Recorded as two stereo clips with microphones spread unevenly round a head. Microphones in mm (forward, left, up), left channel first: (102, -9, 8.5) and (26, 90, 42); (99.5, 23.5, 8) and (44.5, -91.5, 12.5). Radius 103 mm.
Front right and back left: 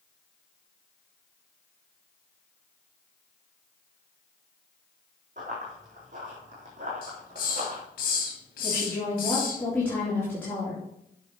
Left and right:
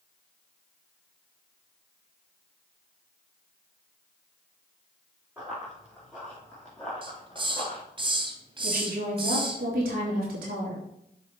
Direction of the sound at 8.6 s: 135° right.